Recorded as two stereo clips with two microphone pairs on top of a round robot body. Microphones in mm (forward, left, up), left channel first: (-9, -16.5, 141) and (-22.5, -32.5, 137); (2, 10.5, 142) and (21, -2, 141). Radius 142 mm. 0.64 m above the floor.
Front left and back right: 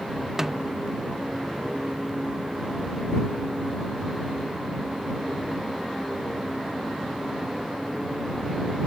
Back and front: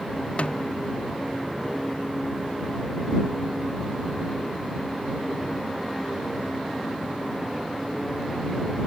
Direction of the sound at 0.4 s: 165° left.